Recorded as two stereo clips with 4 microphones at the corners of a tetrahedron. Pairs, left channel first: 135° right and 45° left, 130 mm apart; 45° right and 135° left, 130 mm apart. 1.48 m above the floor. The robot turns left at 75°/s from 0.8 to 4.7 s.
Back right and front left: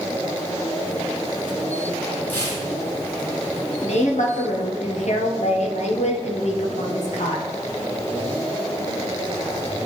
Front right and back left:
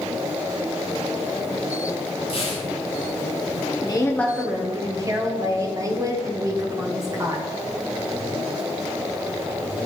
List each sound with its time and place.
2.3 s tearing paper: 65° right, 2 m; by 2.7 s 95° right, 2 m
3.8 s a woman speaking: 95° right, 1.0 m; by 7.5 s 160° right, 1.0 m